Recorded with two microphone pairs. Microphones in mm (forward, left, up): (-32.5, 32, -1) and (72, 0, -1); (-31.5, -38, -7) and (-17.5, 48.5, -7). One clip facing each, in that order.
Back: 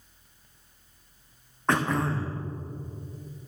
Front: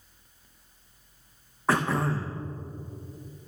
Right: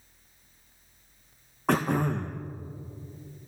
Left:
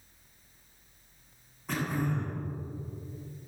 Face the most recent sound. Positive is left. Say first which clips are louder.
# even, right 6 dB
turn(degrees=-100)